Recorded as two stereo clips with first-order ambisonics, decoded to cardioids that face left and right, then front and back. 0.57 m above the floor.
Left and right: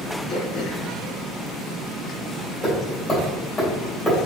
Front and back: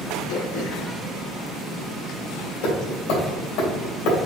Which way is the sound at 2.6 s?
10° left.